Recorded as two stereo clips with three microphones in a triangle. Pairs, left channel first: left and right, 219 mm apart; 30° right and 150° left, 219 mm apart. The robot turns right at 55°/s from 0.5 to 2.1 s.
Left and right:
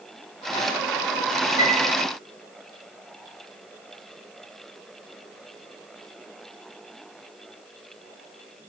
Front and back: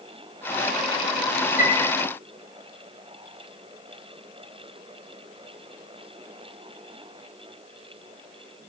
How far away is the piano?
About 5 m.